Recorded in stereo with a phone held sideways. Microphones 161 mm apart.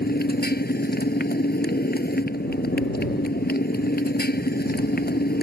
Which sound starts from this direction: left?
A motorcycle, at 0.0 s.